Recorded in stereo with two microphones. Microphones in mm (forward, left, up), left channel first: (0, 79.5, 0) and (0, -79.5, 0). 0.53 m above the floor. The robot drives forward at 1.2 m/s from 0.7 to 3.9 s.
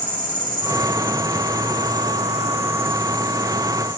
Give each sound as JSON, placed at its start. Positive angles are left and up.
{"t": 0.0, "sound": "an insect", "side_deg": -65, "distance_m": 1.7}